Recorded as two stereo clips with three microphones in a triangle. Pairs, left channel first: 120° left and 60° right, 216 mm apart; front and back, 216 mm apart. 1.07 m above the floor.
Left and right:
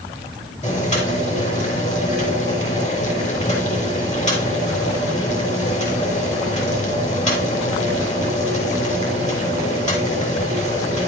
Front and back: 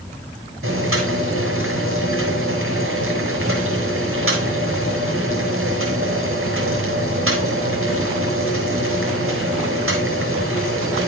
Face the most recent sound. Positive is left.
turn(degrees=175)